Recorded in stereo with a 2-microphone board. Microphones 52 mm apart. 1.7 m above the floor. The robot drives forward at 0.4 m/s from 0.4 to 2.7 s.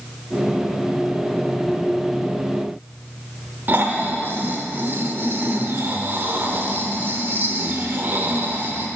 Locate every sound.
3.7 s snoring: 40° right (ahead or behind), 1.0 m